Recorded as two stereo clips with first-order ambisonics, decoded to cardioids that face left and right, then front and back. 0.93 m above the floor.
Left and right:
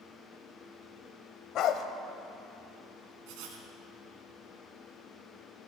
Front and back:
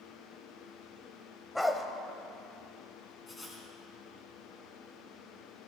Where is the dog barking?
85° left, 0.8 m.